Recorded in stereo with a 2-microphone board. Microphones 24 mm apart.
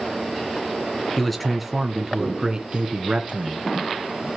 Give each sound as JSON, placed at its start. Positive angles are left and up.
{"t": 1.2, "sound": "a man speaking", "side_deg": 5, "distance_m": 2.0}